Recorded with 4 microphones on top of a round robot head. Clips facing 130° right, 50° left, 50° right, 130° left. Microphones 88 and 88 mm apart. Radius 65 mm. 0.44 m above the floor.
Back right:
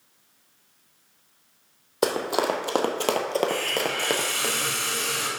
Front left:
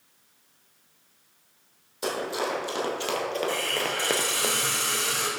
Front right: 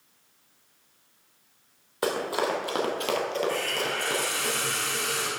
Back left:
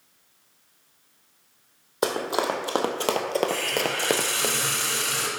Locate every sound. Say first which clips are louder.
2.0 s running footsteps: back right 5 dB, back left 2 dB; 160° right, 1.3 m; by 4.5 s 120° left, 0.6 m
3.5 s a hiss: back right 2 dB, back left 2 dB; 120° left, 3 m